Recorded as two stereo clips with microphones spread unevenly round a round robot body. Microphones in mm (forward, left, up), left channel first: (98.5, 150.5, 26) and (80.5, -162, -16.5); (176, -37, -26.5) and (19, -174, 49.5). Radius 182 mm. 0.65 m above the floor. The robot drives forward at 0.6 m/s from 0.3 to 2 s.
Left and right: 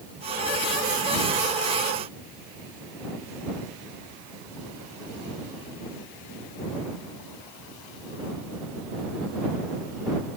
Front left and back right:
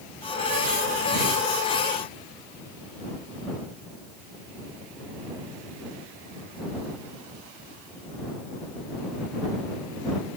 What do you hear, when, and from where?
Only background noise.